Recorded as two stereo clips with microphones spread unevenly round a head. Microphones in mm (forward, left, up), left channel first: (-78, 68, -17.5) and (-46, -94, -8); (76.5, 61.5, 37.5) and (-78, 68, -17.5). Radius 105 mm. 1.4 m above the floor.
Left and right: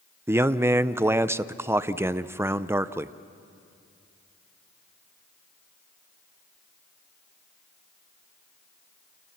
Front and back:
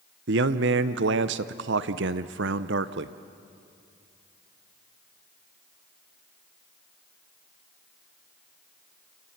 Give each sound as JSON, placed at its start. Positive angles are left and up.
{"t": 0.3, "sound": "a man speaking", "azimuth_deg": -155, "distance_m": 0.7}